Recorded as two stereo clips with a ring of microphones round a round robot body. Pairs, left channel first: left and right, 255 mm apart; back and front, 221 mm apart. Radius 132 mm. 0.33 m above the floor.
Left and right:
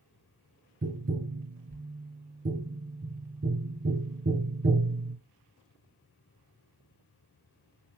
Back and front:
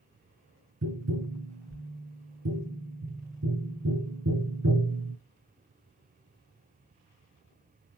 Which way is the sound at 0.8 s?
30° right.